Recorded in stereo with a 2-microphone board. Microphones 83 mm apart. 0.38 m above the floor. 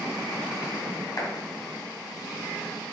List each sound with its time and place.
1.2 s a clap: 40° left (ahead or behind), 2.5 m